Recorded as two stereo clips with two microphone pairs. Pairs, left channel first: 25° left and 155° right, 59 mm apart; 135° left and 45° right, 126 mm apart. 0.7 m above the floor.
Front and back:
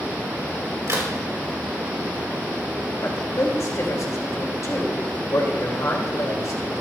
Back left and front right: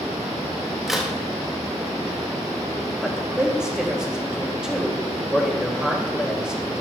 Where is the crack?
130° right, 2.5 m.